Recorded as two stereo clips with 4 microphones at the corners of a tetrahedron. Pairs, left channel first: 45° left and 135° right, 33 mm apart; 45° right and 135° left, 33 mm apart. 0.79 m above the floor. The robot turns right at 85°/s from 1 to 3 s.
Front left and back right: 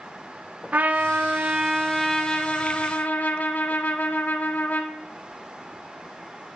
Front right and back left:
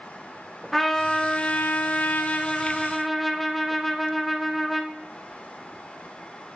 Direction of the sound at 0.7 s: 130° right.